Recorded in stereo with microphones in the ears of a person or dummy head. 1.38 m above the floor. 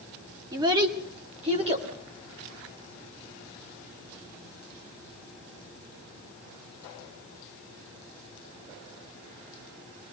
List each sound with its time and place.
0.5 s a child speaking: 20° right (ahead or behind), 1.3 m; by 1.9 s 30° right (ahead or behind), 2.5 m